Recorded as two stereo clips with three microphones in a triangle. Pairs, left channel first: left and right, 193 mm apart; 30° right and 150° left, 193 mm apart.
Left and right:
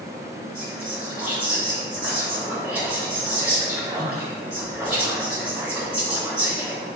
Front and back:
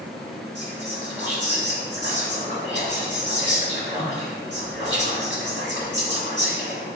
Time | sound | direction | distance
0.6 | whispering | 5° right | 1.8 m